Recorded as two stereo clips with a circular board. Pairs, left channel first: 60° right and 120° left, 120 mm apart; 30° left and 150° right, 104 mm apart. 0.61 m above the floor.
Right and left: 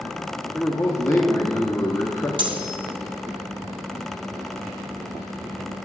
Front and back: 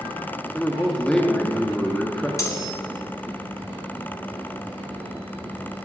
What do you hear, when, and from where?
0.5 s a man speaking: 45° right, 0.6 m
2.4 s cutlery clinking: 85° left, 0.7 m